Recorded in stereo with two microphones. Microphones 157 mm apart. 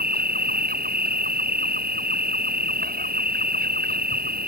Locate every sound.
0.0 s an insect: 65° right (ahead or behind)